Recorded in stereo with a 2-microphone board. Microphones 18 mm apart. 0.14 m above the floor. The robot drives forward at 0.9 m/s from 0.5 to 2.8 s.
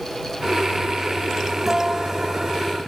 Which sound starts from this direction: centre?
A guitar, at 1.7 s.